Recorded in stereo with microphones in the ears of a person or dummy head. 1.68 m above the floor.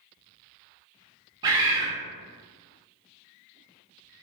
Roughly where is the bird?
Right.